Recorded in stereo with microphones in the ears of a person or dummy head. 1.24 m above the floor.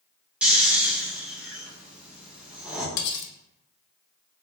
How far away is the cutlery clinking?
About 0.6 m.